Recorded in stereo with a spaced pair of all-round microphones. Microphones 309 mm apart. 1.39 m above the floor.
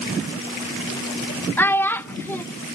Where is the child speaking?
5° left (ahead or behind), 0.6 m.